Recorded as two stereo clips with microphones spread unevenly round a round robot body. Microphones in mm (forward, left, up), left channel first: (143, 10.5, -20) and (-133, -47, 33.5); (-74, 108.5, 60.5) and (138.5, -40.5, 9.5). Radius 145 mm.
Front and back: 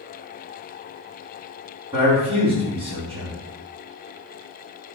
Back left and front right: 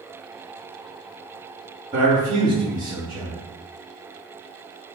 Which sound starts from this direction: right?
A man speaking, at 1.9 s.